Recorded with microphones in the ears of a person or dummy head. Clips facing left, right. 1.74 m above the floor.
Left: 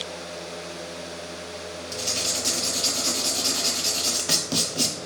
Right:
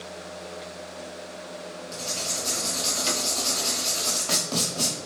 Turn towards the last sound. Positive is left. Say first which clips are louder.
# left 3 dB
turn(degrees=20)  # may be behind; listen again after turning